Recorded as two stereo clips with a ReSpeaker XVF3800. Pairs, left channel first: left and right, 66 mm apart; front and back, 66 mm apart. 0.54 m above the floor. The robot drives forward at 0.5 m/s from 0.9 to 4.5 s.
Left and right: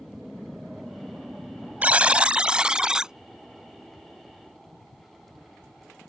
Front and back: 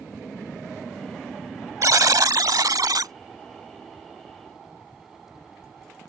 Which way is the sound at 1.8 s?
155° right.